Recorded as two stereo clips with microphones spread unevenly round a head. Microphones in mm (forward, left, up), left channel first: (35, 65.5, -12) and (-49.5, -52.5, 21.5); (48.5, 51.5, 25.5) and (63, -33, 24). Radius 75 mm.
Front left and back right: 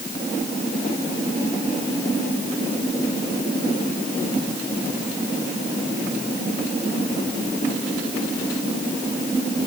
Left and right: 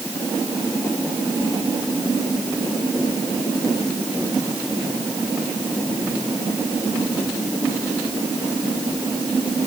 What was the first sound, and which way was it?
Only background noise.